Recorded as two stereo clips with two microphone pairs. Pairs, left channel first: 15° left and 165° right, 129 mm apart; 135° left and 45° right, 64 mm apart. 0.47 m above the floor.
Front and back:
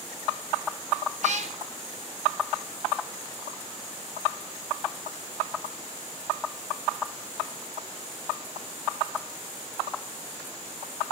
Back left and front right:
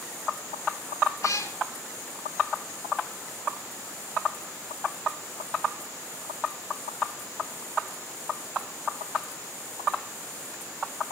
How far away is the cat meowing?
About 2 m.